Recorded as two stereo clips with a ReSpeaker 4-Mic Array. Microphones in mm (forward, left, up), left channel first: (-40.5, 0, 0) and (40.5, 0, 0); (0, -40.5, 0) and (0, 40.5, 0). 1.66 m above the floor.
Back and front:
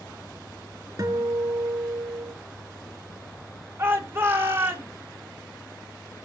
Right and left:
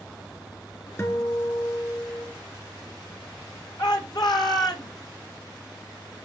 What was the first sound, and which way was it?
A guitar, 40° right.